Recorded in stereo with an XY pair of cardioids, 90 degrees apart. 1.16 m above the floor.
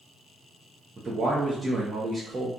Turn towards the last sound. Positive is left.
turn(degrees=-35)